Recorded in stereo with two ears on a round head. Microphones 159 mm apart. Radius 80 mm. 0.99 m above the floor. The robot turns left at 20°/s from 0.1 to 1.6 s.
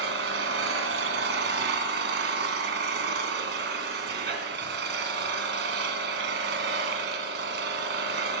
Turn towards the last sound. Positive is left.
turn(degrees=-105)